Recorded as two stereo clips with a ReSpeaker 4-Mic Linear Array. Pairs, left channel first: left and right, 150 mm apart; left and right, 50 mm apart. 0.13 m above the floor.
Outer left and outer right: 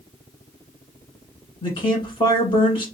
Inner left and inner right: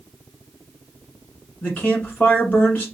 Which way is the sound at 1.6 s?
30° left (ahead or behind).